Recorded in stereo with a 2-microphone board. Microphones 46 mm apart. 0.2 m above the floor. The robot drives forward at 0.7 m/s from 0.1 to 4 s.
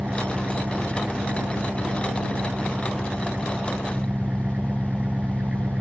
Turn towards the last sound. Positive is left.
turn(degrees=-30)  # may be behind; listen again after turning